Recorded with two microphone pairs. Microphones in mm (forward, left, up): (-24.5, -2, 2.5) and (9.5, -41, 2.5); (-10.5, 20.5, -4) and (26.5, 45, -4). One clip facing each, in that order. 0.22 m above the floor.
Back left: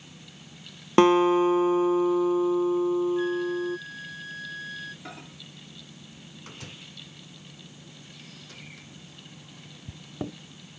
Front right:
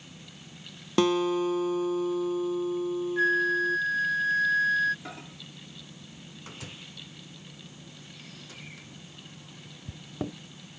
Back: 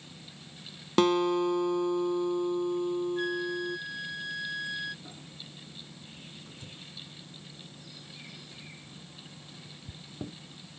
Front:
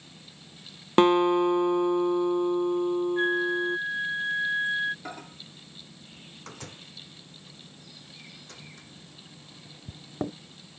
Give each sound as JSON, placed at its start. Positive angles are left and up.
{"t": 1.0, "sound": "a guitar", "azimuth_deg": 90}
{"t": 3.2, "sound": "a flute", "azimuth_deg": -20}
{"t": 5.0, "sound": "a microwave", "azimuth_deg": 40}